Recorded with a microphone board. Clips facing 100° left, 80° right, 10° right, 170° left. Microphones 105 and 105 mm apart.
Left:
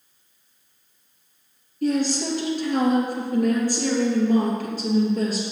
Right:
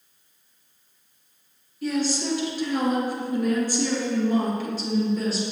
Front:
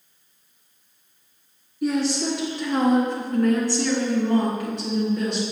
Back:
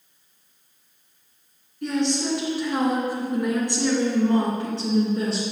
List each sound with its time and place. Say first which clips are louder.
1.8 s a woman speaking: left 3 dB, front 1 dB; 70° left, 2.5 m; by 5.4 s 130° left, 2.5 m